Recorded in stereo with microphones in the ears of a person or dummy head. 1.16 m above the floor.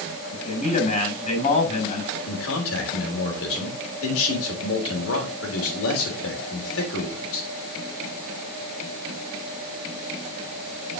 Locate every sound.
0.3 s a man speaking: 40° left (ahead or behind), 7 m
2.3 s a man speaking: 75° left (ahead or behind), 3.5 m